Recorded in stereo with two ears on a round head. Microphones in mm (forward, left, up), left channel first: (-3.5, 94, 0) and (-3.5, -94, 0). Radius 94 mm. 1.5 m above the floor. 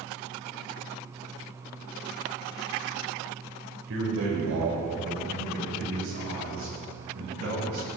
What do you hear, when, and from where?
3.9 s a man speaking: 70° right (ahead or behind), 5 m